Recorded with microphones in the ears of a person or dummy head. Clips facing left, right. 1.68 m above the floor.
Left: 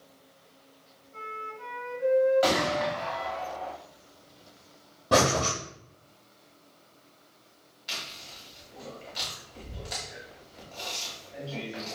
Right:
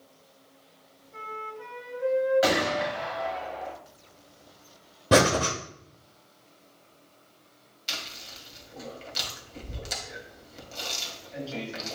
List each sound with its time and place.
1.1 s a flute: 45° right (ahead or behind), 1.2 m
2.4 s a gunshot: 15° right (ahead or behind), 1.0 m
5.1 s breathing: 25° right (ahead or behind), 0.6 m
7.9 s chewing: 40° right (ahead or behind), 1.3 m